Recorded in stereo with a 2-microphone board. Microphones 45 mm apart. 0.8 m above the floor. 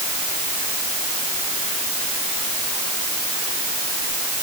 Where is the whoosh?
I don't hear a whoosh.